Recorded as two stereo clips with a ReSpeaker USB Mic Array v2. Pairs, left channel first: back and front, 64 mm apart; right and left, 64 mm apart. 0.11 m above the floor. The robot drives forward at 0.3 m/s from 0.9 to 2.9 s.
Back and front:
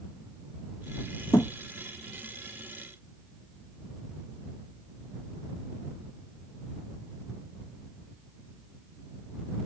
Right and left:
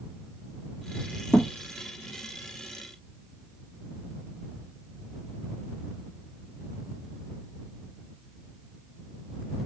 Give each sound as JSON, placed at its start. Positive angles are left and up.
{"t": 1.3, "sound": "a thud", "azimuth_deg": -160, "distance_m": 1.1}